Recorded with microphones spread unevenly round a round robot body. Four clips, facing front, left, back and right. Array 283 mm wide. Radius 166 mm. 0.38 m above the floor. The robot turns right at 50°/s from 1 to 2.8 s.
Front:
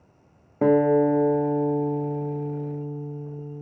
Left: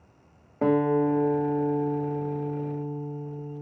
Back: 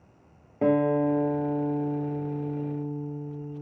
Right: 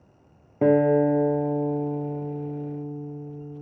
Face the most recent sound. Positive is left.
turn(degrees=70)